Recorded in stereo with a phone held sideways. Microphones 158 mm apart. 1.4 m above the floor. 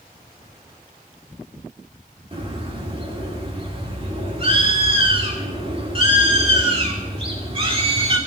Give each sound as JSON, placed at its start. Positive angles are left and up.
{"t": 2.3, "sound": "a bird", "side_deg": -35, "distance_m": 2.5}